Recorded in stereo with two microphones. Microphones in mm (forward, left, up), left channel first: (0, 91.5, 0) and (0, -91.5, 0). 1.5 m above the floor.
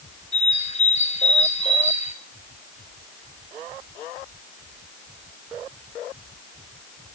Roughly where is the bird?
Left.